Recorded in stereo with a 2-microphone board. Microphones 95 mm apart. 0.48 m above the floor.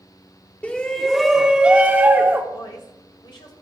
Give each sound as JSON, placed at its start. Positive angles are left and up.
{"t": 0.6, "sound": "a shout", "side_deg": 15, "distance_m": 0.8}
{"t": 2.5, "sound": "a woman speaking", "side_deg": 55, "distance_m": 2.0}